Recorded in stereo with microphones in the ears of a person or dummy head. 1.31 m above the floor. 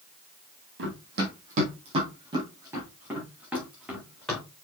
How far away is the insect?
No insect in this recording.